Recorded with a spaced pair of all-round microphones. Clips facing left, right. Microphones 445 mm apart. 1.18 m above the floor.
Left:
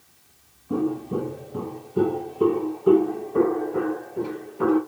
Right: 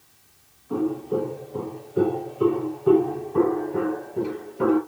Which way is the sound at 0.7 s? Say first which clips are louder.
Even; 45° left (ahead or behind).